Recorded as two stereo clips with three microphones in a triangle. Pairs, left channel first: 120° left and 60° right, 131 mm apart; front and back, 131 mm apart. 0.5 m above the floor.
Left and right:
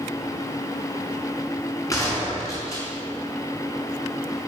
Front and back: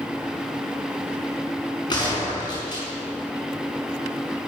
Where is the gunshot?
55° left, 6 m.